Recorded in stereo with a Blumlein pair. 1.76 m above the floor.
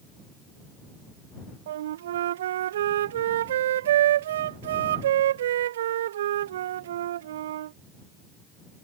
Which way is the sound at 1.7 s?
60° right.